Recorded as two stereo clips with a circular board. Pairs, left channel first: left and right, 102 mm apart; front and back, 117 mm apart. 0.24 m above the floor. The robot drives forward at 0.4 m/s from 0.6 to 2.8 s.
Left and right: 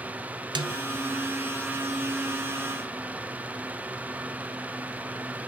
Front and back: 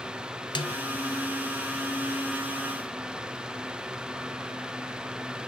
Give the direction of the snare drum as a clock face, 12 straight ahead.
2 o'clock.